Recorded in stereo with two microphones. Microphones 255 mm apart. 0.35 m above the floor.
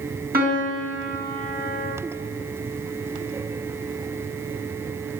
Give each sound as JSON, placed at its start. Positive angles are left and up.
{"t": 0.3, "sound": "a piano", "side_deg": -40, "distance_m": 4.0}